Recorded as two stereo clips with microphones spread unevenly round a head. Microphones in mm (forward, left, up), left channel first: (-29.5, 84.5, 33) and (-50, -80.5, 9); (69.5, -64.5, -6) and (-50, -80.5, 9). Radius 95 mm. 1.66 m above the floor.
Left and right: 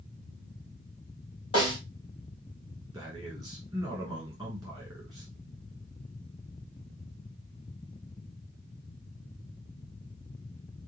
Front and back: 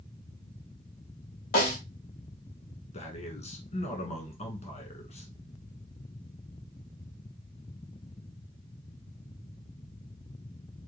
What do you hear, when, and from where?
1.5 s a snare drum: 20° left, 1.8 m
2.9 s a man speaking: 10° right, 1.2 m